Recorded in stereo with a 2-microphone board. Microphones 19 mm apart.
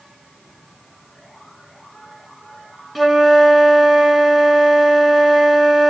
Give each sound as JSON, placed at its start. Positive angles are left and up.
{"t": 3.0, "sound": "a flute", "side_deg": 0, "distance_m": 1.1}